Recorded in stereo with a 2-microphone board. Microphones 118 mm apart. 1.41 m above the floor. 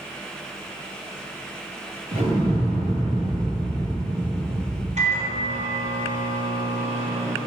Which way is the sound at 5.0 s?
70° right (ahead or behind).